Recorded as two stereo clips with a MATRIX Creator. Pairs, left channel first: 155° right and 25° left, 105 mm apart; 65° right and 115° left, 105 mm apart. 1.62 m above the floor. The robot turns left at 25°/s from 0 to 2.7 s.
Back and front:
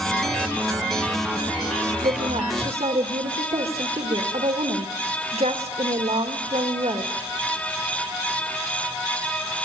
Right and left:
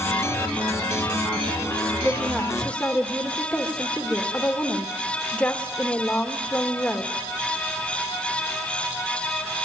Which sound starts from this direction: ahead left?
A woman speaking, at 2.0 s.